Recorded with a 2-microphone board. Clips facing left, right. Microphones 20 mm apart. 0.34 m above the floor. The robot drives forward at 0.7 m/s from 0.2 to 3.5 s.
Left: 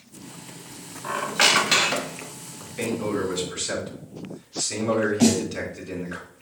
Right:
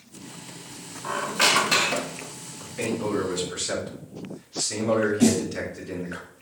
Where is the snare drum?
70° left (ahead or behind), 0.7 m.